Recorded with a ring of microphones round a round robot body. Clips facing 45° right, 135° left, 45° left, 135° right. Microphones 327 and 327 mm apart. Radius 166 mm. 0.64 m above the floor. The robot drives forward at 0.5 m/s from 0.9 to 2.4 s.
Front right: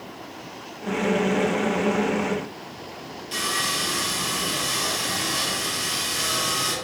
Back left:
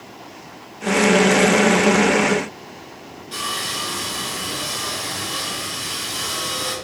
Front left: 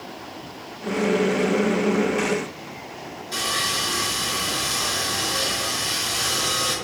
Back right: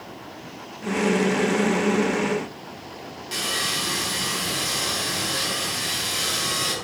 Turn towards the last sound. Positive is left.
turn(degrees=-125)